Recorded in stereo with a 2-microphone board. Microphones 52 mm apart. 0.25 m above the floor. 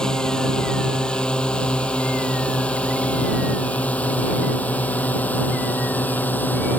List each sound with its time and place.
0.0 s a drone: 15° left (ahead or behind); by 6.8 s 35° left (ahead or behind)